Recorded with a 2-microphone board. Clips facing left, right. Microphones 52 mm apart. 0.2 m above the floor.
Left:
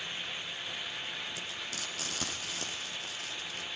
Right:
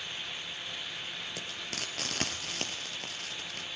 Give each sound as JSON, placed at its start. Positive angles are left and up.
{"t": 1.4, "sound": "frying", "side_deg": -55, "distance_m": 4.5}